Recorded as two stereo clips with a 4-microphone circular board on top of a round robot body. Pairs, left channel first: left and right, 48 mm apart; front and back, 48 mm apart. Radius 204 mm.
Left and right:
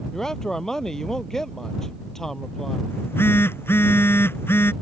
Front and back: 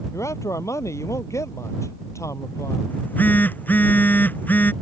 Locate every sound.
0.1 s a man speaking: 10° left
2.9 s a phone buzzing: 55° left